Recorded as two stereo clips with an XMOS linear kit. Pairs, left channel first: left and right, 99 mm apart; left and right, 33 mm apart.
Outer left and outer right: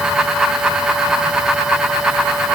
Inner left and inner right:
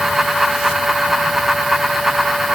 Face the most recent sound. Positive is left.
No sound to turn to.